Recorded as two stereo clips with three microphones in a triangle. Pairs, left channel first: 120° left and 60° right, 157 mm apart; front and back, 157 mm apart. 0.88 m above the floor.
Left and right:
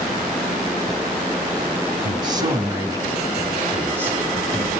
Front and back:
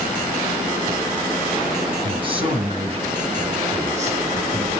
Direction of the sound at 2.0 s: 120° right.